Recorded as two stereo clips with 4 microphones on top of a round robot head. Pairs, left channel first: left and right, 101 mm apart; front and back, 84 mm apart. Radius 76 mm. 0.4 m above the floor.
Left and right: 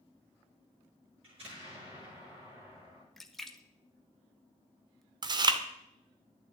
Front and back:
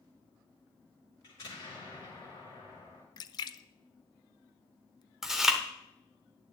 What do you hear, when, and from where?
1.2 s an explosion: 60° right, 6.5 m
3.2 s a splash: 5° left, 0.5 m
5.2 s chewing: 95° right, 0.8 m